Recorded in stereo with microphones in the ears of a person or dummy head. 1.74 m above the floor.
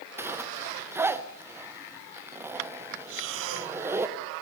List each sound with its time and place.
0.2 s a zipper: 10° right (ahead or behind), 1.0 m
3.1 s breathing: 75° right (ahead or behind), 1.5 m